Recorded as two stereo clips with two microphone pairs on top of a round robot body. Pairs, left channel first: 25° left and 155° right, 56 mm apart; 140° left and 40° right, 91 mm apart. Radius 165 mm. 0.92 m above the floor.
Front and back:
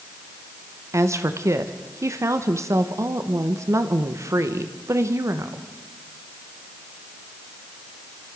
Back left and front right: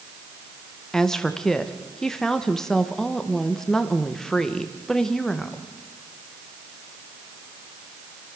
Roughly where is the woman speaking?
Behind right.